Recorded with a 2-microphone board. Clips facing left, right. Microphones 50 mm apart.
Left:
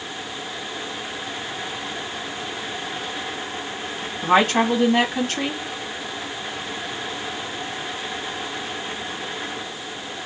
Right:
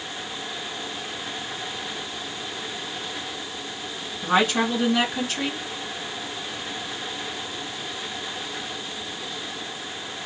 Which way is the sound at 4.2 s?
50° left (ahead or behind).